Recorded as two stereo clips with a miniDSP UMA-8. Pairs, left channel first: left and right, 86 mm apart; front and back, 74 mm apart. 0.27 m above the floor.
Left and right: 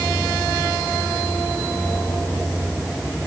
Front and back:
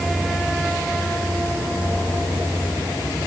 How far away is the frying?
I don't hear frying.